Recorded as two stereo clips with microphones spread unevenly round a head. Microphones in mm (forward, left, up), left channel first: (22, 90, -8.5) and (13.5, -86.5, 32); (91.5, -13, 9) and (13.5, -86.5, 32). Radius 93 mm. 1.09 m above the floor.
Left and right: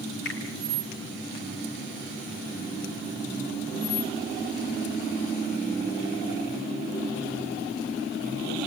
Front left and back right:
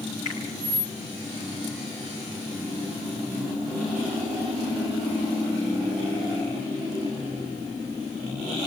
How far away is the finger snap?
About 6 m.